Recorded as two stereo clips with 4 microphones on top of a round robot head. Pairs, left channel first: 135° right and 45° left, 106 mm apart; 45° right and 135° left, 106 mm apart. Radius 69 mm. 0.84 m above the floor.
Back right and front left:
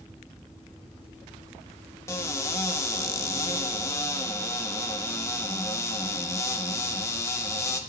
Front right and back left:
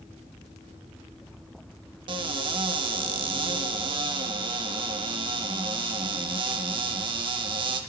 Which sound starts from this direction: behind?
A cupboard door, at 2.1 s.